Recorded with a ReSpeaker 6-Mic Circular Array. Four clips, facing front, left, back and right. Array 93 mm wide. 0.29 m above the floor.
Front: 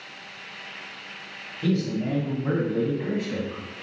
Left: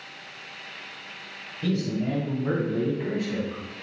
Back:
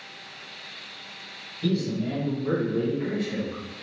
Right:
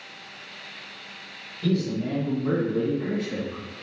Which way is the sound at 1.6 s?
35° left.